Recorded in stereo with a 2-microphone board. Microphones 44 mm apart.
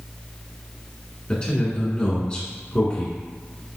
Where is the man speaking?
20° left (ahead or behind), 1.7 m.